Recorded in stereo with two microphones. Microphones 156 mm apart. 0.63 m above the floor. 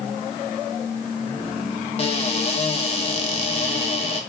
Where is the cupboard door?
40° left (ahead or behind), 0.7 m.